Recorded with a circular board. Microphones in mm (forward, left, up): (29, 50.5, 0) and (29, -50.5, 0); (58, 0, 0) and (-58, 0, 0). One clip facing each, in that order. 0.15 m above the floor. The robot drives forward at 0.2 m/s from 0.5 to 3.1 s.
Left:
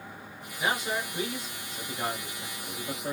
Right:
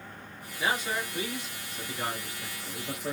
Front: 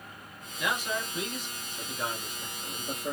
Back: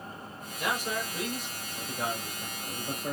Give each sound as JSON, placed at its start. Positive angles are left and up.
{"t": 0.6, "sound": "a man speaking", "azimuth_deg": 165, "distance_m": 1.6}